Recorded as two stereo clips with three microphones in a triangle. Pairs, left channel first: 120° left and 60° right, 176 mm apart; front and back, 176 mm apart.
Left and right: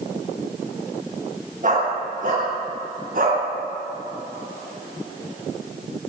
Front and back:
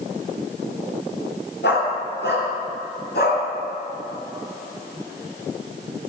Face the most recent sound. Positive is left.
turn(degrees=-25)